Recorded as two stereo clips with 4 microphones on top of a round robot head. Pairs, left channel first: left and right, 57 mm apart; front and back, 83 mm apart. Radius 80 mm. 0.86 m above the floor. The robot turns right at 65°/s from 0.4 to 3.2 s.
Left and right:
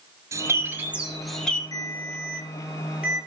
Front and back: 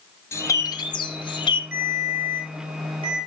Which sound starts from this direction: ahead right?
A bird, at 0.3 s.